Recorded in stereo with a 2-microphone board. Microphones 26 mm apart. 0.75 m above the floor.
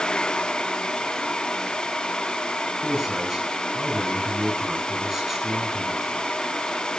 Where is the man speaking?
20° right (ahead or behind), 9.5 m.